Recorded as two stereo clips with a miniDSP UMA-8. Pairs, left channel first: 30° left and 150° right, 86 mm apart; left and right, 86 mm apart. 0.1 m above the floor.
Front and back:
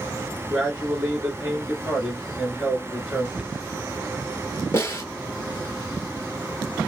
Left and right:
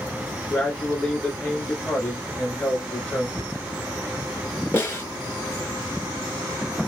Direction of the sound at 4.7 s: 60° left.